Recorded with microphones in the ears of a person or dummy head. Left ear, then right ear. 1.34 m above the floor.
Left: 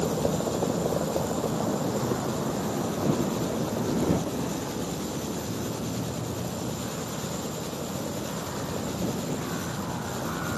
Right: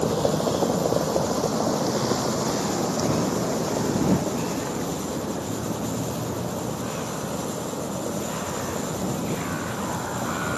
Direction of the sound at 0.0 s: 85° right.